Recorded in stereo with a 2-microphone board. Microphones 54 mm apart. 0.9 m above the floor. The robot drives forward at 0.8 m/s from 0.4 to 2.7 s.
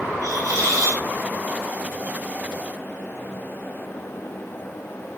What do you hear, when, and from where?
0.2 s a hiss: 75° right (ahead or behind), 3.5 m; by 1.0 s 80° right, 3.5 m